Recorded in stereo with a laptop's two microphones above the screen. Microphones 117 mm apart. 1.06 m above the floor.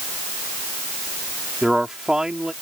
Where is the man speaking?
5° right (ahead or behind).